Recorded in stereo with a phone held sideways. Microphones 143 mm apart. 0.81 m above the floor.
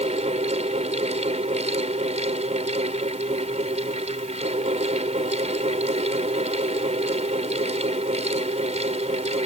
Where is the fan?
50° right (ahead or behind).